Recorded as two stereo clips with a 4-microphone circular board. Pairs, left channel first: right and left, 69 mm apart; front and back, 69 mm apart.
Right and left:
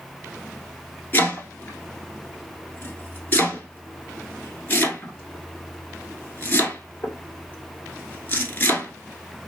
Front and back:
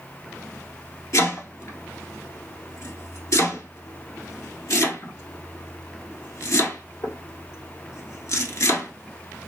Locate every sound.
1.1 s chopping: 30° right, 0.9 m